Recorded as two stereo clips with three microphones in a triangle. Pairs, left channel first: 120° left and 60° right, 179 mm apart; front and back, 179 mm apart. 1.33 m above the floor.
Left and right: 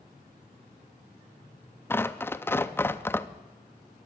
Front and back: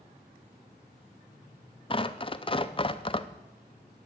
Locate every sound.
1.9 s tearing paper: 45° left, 0.5 m